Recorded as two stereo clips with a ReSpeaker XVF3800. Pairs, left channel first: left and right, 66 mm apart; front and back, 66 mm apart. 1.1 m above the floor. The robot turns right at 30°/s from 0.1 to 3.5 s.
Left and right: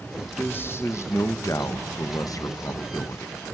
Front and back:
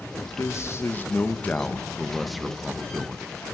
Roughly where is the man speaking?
Ahead left.